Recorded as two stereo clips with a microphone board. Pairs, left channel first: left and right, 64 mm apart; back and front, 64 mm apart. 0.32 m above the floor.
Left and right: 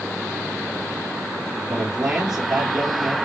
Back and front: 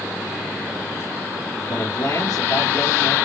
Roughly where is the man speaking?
Behind.